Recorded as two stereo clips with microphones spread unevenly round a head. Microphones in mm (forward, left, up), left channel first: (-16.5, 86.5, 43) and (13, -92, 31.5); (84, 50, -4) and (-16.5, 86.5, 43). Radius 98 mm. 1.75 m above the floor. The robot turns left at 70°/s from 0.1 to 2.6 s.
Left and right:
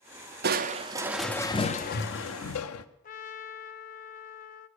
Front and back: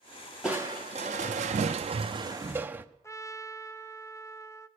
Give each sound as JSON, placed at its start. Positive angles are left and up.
{"t": 0.4, "sound": "crushing", "azimuth_deg": -120, "distance_m": 0.7}
{"t": 3.0, "sound": "a trumpet", "azimuth_deg": 50, "distance_m": 0.7}